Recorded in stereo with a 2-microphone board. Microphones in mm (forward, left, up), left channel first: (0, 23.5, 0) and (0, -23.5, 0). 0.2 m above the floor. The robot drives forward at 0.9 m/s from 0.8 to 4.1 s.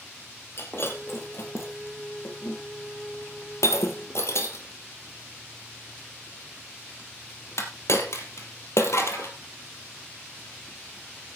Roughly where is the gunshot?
I don't hear a gunshot.